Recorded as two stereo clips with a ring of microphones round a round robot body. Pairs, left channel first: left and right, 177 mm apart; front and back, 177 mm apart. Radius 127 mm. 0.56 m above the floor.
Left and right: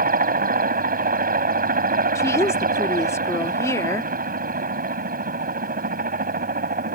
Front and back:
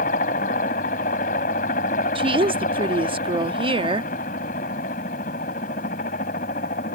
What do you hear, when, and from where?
0.0 s a helicopter: 55° right
2.1 s a woman speaking: 150° left